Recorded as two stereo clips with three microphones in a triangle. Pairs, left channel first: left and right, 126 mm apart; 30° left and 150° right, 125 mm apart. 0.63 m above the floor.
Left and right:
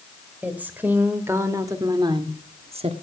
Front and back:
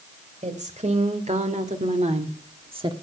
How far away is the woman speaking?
About 2.5 m.